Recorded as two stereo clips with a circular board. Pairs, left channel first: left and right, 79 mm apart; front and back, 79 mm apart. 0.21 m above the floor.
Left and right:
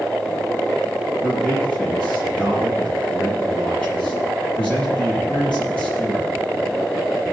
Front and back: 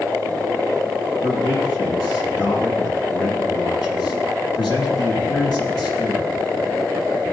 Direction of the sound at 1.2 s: 15° left.